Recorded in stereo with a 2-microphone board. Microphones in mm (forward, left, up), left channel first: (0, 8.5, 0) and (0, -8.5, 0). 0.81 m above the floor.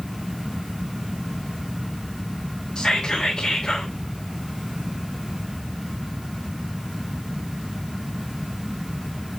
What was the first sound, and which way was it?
Whispering, 40° left (ahead or behind).